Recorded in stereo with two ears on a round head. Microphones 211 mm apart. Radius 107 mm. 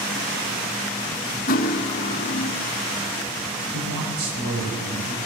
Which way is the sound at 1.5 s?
40° left (ahead or behind).